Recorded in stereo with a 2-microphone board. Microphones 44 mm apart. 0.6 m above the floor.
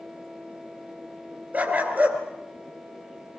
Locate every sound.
1.5 s a dog barking: 40° right (ahead or behind), 2.5 m